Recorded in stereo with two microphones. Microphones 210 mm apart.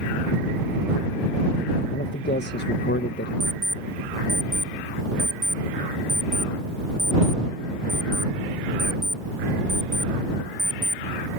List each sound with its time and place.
1.9 s a man speaking: 55° left (ahead or behind)
3.4 s an alarm clock: 20° right (ahead or behind)